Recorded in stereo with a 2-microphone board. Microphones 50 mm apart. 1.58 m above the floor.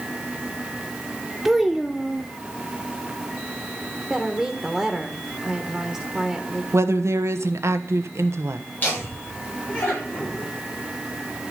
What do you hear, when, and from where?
1.4 s a child speaking: 5° right (ahead or behind), 0.6 m
4.1 s a woman speaking: 5° right (ahead or behind), 1.3 m
6.7 s a woman speaking: 70° right (ahead or behind), 1.1 m
8.8 s laughter: 35° left (ahead or behind), 7.5 m